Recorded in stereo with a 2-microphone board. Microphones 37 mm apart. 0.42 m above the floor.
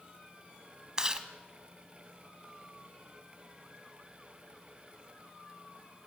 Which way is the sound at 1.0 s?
25° right (ahead or behind).